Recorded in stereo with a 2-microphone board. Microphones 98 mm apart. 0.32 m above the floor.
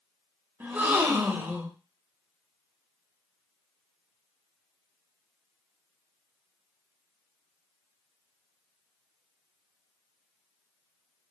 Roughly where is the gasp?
Centre.